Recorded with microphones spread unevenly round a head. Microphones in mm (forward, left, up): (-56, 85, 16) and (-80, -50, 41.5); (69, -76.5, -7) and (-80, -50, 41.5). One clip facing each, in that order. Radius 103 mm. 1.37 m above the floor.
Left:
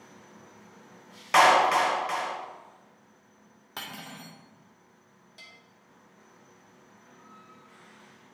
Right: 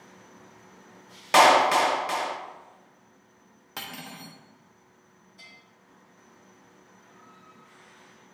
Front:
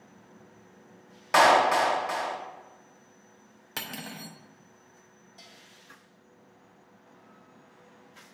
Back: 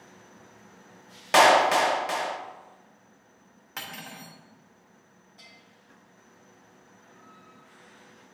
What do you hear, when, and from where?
1.3 s a clap: 145° right, 0.6 m
3.8 s cutlery clinking: 50° right, 0.6 m
5.4 s a bell: 55° left, 1.2 m